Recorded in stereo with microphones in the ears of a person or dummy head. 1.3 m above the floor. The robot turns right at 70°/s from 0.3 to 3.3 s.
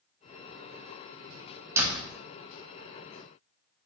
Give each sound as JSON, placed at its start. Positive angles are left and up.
{"t": 1.8, "sound": "a door slam", "side_deg": -15, "distance_m": 0.8}